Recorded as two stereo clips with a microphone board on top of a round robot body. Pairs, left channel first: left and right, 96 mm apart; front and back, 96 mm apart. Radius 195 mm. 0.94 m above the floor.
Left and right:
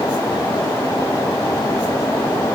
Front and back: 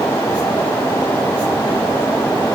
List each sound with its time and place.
Only background noise.